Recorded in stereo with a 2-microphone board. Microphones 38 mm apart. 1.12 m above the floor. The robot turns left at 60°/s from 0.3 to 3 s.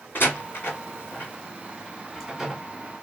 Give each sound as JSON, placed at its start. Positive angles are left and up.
{"t": 0.1, "sound": "a door slam", "side_deg": 65, "distance_m": 1.7}